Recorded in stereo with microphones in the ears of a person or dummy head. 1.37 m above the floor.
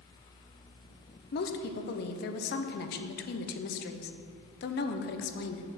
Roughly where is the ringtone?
I don't hear a ringtone.